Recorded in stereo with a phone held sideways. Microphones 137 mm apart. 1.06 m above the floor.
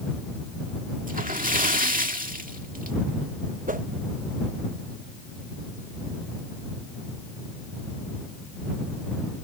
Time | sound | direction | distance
1.1 | a splash | 85° right | ?
3.7 | a whoosh | 80° right | ?